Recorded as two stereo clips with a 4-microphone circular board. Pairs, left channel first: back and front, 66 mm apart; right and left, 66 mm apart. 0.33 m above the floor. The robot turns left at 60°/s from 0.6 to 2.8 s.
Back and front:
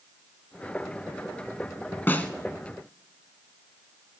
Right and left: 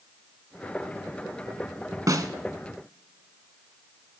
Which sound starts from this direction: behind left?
A snare drum, at 2.1 s.